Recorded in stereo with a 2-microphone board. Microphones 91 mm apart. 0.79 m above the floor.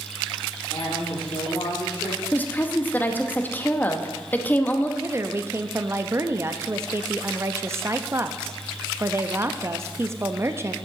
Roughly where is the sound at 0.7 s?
Left.